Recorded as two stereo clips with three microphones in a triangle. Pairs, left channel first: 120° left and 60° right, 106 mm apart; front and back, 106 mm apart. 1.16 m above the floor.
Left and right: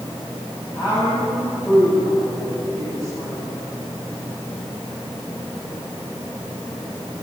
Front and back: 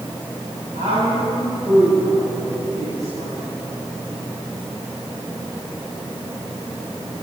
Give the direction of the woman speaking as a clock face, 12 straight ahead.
6 o'clock.